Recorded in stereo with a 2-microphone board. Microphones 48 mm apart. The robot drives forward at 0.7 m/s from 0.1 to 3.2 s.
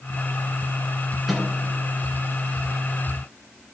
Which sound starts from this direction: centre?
A microwave, at 1.3 s.